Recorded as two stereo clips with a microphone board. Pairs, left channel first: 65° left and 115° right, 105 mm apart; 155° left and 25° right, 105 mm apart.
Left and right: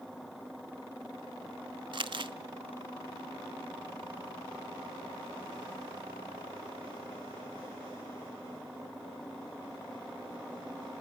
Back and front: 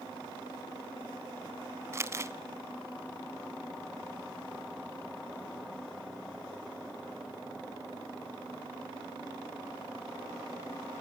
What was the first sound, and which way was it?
Crumpling, 80° right.